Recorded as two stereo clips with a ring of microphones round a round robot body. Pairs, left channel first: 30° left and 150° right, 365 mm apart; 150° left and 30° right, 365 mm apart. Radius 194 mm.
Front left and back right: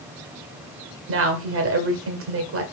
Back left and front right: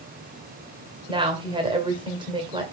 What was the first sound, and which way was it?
A woman speaking, 105° right.